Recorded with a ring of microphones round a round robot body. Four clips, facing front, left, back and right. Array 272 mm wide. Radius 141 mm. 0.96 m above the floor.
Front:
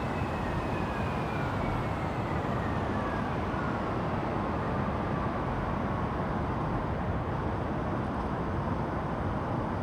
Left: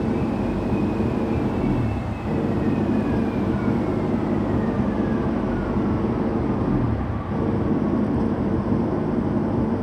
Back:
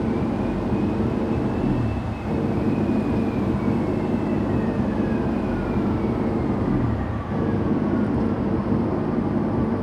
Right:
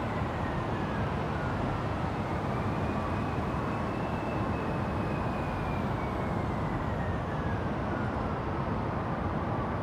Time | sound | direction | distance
0.0 | an engine running | 130° left | ?